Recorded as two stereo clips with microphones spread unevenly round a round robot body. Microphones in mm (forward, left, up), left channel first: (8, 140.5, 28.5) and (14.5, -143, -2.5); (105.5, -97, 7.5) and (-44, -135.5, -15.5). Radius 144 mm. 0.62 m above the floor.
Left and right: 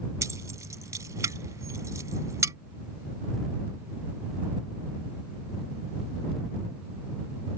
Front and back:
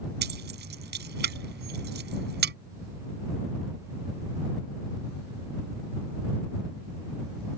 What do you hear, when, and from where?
0.2 s keys jangling: 170° right